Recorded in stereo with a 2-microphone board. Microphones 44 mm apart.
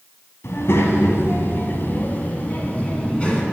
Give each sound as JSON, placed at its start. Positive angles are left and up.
{"t": 0.4, "sound": "a child speaking", "side_deg": 70, "distance_m": 2.5}